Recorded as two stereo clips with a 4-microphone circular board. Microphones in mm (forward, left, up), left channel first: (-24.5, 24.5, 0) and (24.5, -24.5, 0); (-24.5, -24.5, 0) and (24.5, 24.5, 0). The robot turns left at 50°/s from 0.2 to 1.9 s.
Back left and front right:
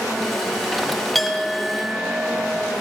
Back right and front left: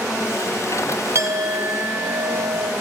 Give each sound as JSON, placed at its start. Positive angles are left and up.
{"t": 1.1, "sound": "a clink", "azimuth_deg": 50, "distance_m": 0.6}